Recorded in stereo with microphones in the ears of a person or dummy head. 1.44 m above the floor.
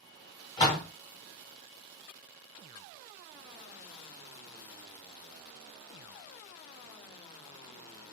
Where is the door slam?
25° left (ahead or behind), 0.9 m.